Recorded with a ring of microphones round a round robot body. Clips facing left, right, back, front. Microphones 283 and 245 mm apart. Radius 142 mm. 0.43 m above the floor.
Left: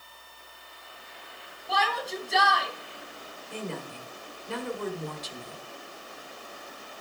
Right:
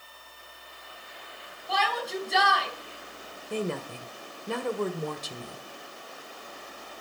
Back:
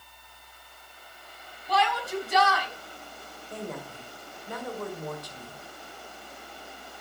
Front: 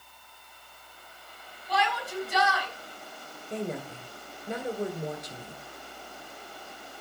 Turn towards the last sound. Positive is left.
turn(degrees=-65)